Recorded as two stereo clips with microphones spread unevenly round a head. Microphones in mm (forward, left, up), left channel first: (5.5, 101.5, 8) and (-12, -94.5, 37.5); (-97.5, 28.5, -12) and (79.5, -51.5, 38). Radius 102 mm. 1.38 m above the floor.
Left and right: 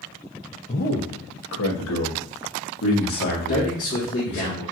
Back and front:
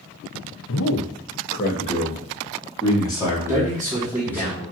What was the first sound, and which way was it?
A man speaking, 140° left.